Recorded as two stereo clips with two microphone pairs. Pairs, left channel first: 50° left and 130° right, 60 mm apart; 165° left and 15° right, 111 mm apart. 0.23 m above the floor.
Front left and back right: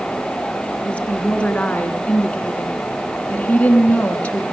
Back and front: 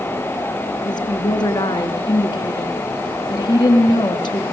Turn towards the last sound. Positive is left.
turn(degrees=120)